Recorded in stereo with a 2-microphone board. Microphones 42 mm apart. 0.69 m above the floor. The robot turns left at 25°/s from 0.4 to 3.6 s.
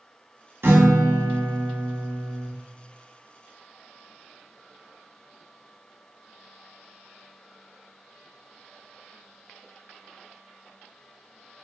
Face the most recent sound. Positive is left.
turn(degrees=-140)